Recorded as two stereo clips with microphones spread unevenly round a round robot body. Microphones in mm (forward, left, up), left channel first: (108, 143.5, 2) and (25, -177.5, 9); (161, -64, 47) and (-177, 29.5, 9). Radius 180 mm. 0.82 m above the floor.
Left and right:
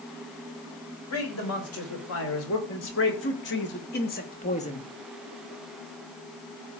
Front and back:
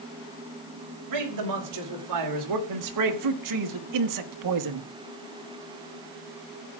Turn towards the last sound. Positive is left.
turn(degrees=150)